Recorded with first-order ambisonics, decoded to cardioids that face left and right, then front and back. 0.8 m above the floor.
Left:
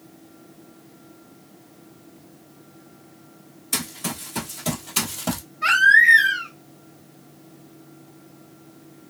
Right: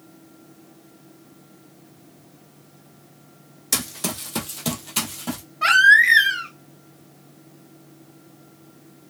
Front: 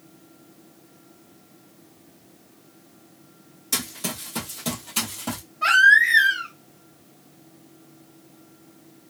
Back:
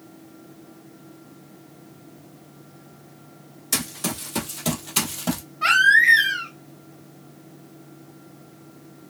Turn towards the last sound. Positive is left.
turn(degrees=-100)